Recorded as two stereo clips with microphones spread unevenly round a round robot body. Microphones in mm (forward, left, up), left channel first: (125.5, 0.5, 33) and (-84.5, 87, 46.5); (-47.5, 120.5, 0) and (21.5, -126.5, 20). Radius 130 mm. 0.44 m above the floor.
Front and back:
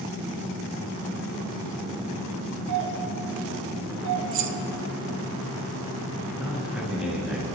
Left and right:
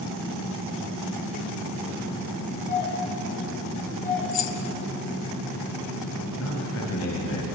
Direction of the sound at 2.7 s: 165° left.